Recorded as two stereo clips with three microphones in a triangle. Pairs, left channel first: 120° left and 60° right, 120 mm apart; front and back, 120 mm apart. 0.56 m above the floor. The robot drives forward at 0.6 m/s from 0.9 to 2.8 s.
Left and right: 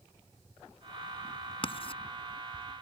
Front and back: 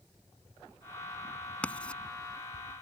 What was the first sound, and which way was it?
Writing, 80° left.